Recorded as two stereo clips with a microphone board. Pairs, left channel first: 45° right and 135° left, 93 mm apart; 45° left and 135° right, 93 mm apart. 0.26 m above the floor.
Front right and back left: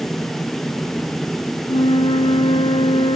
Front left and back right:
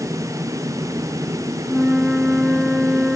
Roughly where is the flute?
Ahead right.